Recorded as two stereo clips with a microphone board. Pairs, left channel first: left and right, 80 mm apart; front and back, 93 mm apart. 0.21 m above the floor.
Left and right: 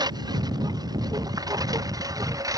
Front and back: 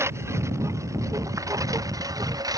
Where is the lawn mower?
120° right; by 2.6 s 130° right.